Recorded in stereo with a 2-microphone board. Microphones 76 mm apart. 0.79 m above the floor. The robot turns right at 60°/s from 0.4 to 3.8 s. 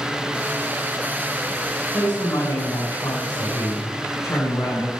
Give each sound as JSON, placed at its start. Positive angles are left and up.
{"t": 1.9, "sound": "a woman speaking", "azimuth_deg": 20, "distance_m": 3.5}